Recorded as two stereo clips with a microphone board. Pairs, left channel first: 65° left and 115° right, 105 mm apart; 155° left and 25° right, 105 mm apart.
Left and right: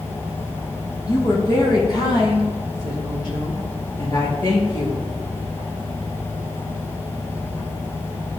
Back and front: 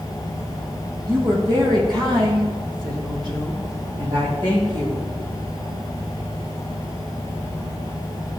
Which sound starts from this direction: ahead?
A woman speaking, at 1.1 s.